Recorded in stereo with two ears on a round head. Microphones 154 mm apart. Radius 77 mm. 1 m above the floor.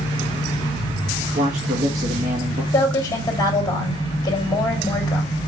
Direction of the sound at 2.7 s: 20° left (ahead or behind).